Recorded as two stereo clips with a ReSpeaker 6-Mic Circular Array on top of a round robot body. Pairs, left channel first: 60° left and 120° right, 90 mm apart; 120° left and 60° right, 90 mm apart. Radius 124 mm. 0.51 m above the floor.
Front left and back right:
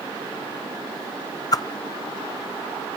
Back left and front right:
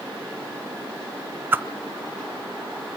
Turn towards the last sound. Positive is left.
turn(degrees=10)